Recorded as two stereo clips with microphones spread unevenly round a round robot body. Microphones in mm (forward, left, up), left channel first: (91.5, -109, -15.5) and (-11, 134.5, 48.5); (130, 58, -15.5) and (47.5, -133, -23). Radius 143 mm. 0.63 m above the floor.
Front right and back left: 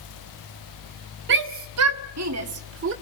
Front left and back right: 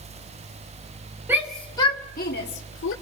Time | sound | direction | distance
1.3 | a shout | 165° left | 1.9 m